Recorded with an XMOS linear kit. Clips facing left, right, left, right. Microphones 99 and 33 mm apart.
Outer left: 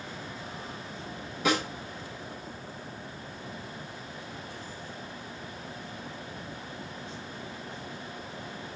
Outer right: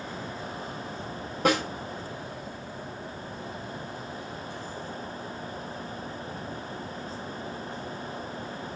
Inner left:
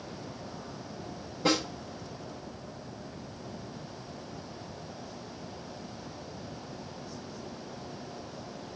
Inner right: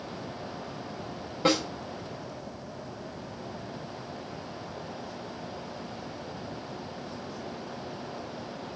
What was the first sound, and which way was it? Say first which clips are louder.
A snare drum: outer right 3 dB, inner right 2 dB; 45° right (ahead or behind).